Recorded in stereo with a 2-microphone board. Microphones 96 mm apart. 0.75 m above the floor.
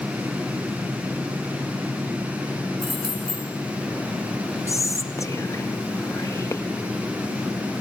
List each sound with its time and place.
2.8 s keys jangling: 60° left (ahead or behind), 4 m
4.7 s whispering: 35° left (ahead or behind), 0.6 m